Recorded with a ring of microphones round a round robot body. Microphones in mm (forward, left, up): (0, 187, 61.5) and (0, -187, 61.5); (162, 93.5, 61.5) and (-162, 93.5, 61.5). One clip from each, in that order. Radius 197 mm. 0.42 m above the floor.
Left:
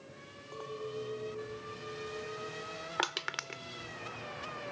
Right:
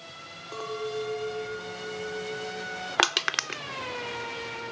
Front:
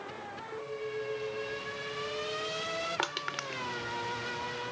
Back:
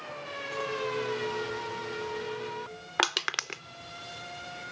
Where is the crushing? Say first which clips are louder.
Right 11 dB, back 6 dB; 135° right.